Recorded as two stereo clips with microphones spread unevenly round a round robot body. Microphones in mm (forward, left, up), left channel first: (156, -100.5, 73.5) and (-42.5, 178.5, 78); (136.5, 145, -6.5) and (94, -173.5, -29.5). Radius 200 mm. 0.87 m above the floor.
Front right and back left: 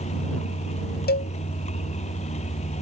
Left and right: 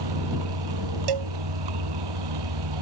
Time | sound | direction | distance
0.0 | a vehicle | 130° right | ?
1.1 | a cowbell | 120° right | ?